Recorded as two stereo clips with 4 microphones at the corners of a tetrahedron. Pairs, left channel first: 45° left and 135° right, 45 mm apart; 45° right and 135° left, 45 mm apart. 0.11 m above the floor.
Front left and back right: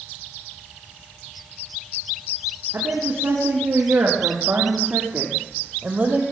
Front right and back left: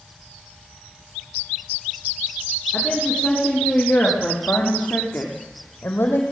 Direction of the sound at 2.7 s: 115° right.